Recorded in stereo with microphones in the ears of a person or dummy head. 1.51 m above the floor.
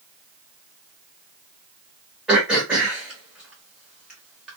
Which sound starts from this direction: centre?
Throat clearing, at 2.3 s.